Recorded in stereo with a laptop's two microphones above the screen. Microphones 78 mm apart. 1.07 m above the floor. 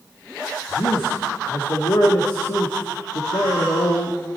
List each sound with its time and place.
0.7 s a man speaking: 85° left, 1.8 m